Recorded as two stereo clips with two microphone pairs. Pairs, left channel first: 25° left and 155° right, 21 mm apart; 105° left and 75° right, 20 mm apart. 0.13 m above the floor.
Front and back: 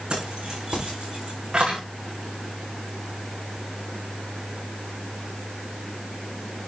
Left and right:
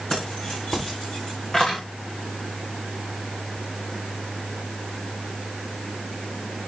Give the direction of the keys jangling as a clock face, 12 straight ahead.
7 o'clock.